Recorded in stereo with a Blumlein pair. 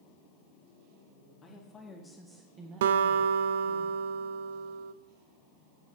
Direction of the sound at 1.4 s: 25° left.